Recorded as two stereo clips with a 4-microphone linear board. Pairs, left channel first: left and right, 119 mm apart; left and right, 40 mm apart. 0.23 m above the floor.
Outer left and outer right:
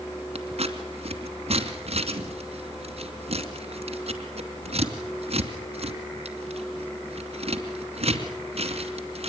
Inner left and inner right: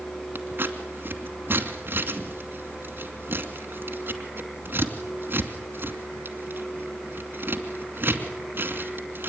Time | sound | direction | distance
0.3 | scissors | 60° right (ahead or behind) | 2.5 m